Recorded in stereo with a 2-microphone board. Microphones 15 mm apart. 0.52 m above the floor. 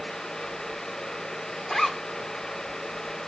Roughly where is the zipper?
Left.